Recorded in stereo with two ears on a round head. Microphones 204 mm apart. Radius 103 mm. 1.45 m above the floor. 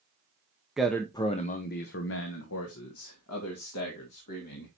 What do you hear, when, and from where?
0.8 s a man speaking: centre (ahead or behind), 0.7 m; by 4.7 s 90° left, 2.5 m